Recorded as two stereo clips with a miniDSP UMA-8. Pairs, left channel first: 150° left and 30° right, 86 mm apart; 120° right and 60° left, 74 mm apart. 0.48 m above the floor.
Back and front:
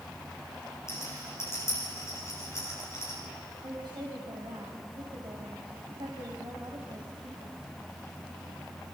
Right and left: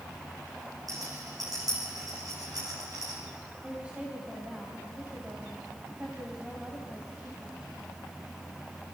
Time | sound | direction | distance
0.9 | a rattle | 95° left | 9.5 m
3.6 | a woman speaking | 10° right | 3 m